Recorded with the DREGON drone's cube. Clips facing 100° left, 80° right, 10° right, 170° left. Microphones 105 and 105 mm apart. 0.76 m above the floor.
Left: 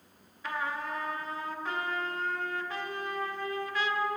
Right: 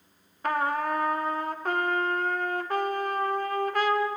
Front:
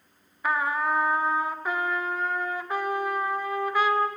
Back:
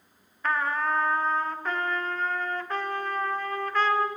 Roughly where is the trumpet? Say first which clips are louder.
Right 8 dB, front 1 dB; right.